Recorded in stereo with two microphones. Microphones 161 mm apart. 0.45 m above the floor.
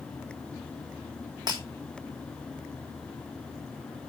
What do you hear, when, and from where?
1.5 s breaking glass: 25° right (ahead or behind), 4.5 m